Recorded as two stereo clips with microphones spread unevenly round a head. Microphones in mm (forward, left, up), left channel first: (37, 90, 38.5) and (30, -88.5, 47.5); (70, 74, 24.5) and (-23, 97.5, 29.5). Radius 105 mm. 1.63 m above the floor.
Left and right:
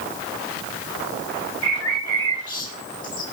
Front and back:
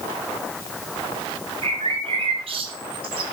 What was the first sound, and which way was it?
A bird, 160° left.